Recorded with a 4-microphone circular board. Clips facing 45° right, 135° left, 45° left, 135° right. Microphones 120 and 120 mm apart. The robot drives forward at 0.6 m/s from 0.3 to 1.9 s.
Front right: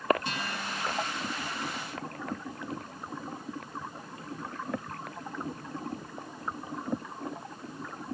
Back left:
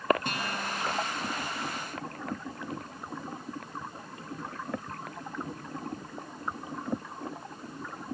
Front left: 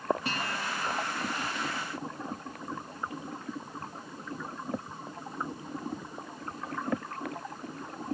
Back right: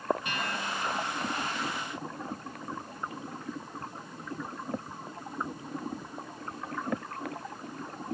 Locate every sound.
0.2 s a guitar: 100° left, 3.5 m; by 1.0 s 105° left, 4 m